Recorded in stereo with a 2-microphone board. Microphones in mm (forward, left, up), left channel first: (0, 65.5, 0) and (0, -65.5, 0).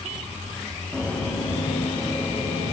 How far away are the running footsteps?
About 1.3 m.